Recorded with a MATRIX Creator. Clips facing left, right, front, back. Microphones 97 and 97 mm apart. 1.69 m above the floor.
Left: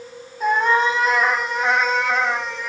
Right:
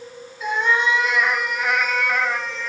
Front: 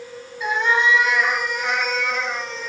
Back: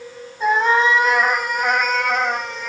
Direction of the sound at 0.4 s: 130° left.